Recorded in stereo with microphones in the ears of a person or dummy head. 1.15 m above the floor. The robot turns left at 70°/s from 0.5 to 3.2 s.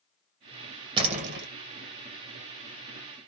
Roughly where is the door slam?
Ahead right.